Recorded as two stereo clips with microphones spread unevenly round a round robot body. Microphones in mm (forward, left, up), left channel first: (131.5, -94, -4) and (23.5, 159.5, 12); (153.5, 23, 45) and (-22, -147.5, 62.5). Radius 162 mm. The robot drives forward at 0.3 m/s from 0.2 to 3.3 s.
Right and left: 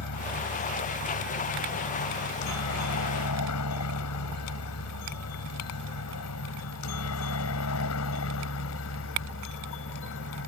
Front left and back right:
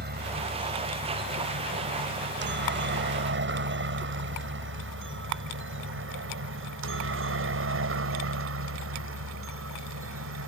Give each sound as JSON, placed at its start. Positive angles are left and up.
{"t": 0.0, "sound": "a helicopter", "azimuth_deg": -90}